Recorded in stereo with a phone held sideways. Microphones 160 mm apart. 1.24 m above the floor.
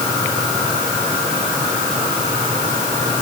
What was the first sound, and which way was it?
Only background noise.